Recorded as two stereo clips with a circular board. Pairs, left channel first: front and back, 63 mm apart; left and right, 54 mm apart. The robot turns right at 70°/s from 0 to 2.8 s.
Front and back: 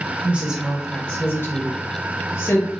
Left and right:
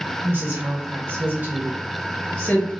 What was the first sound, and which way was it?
A woman speaking, 125° right.